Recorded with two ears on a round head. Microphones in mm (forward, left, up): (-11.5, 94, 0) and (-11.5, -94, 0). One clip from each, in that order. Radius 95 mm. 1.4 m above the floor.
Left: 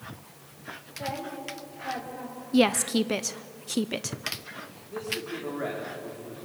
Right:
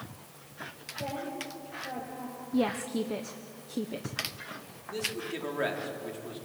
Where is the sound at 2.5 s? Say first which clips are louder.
Left 7 dB; 60° left (ahead or behind), 0.6 m.